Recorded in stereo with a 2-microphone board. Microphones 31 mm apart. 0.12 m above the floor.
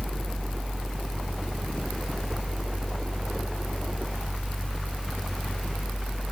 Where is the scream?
No scream in this recording.